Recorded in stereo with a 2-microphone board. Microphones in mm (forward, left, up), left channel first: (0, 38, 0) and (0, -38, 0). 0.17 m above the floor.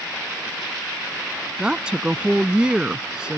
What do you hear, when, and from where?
1.6 s a woman speaking: 10° right (ahead or behind)